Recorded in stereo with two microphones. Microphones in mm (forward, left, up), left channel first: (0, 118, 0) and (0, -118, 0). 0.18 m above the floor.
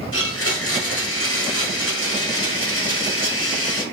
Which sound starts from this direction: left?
A blender, at 0.1 s.